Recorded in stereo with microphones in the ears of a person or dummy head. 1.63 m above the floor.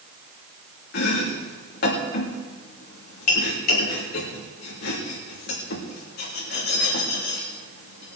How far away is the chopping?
About 2.5 m.